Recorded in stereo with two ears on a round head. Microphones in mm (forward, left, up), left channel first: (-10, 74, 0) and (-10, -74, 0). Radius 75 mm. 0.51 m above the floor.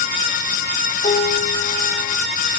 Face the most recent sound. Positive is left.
turn(degrees=40)  # may be behind; listen again after turning